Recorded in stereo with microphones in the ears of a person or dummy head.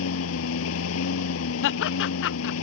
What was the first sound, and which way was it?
A lawn mower, 70° left (ahead or behind).